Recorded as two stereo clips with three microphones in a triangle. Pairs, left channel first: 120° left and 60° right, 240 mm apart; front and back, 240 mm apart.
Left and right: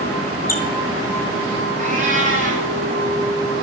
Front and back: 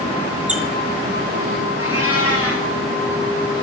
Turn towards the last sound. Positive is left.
turn(degrees=-5)